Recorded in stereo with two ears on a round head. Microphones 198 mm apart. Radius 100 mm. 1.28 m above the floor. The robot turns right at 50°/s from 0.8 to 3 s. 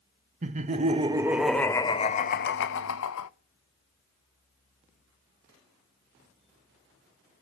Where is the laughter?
35° right, 0.6 m; by 3.3 s 75° left, 0.6 m.